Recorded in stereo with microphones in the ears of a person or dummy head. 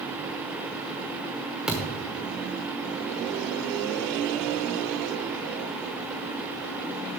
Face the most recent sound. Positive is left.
turn(degrees=-10)  # may be behind; listen again after turning